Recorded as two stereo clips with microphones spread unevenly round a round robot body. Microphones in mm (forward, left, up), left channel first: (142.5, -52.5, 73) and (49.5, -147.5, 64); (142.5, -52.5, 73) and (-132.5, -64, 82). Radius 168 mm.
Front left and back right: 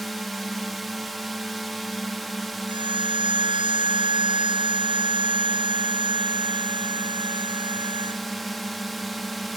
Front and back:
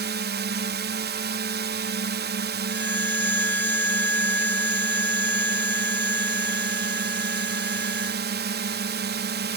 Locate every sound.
0.0 s a drone: 140° left
2.7 s a violin: 80° right